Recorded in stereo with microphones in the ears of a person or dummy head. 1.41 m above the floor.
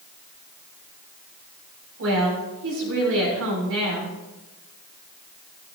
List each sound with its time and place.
2.0 s a woman speaking: 70° right (ahead or behind), 4 m